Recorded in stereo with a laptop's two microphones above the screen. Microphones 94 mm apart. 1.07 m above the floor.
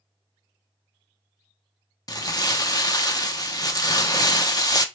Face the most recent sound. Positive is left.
turn(degrees=45)  # may be behind; listen again after turning